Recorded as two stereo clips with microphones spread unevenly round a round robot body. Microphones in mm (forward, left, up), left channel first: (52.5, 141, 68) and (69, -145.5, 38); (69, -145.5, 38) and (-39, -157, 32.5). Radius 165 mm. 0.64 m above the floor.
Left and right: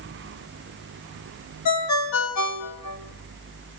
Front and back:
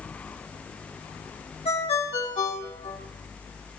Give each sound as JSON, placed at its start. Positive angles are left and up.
{"t": 1.6, "sound": "a ringtone", "azimuth_deg": 70, "distance_m": 3.5}